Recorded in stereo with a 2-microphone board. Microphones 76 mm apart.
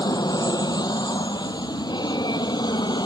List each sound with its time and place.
0.0 s an aircraft: 65° left (ahead or behind); by 3.1 s 70° left (ahead or behind)